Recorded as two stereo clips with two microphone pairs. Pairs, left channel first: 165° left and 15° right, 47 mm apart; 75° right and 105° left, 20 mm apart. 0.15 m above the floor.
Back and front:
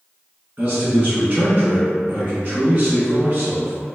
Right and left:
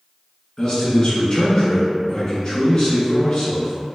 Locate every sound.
0.6 s a man speaking: 35° right, 1.2 m